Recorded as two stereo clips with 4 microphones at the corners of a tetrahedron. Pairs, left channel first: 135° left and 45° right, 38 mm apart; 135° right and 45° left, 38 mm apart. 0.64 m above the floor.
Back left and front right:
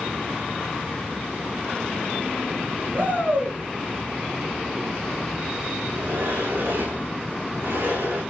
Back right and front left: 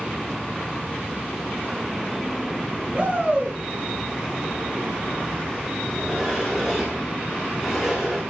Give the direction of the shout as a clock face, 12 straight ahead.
1 o'clock.